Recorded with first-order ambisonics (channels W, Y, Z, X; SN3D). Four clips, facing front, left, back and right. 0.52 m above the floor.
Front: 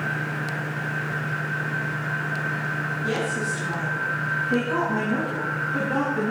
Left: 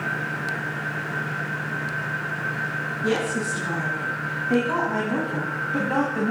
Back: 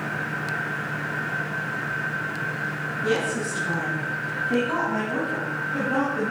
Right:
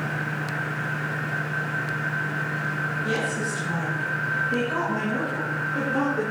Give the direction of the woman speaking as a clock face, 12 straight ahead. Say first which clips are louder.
Left 2 dB, back 3 dB; 8 o'clock.